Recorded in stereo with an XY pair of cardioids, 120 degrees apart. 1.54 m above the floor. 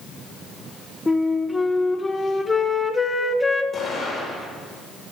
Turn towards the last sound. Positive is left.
turn(degrees=35)